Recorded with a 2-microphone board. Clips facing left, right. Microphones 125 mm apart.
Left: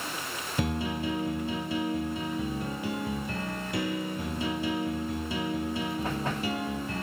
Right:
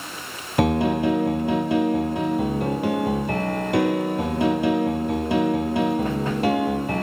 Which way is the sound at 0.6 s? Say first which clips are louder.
Right 11 dB; 70° right (ahead or behind).